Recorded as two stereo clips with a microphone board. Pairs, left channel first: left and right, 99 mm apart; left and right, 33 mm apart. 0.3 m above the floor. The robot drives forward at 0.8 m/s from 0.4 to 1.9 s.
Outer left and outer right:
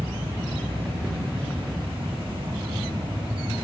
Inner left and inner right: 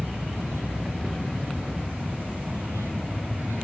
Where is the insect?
80° right, 3 m; by 3.6 s 60° right (ahead or behind), 3.5 m.